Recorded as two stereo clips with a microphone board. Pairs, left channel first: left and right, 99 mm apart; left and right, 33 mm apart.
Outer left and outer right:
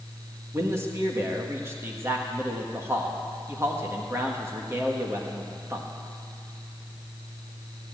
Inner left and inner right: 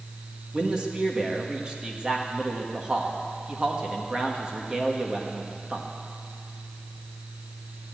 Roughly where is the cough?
I don't hear a cough.